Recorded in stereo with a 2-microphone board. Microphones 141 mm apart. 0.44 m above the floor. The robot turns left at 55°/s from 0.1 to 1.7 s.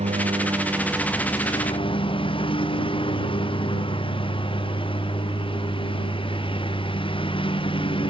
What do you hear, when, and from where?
0.0 s a lawn mower: 130° right; by 8.1 s 140° left